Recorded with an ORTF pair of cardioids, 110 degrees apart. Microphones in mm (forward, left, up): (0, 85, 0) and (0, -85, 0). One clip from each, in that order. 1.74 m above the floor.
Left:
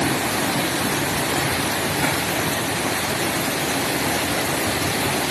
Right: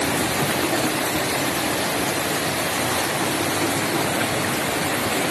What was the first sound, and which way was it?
Only background noise.